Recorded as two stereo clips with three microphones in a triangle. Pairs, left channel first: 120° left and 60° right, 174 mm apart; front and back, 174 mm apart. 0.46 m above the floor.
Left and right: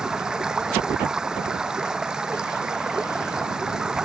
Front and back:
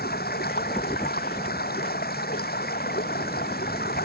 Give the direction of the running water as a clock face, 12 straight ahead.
11 o'clock.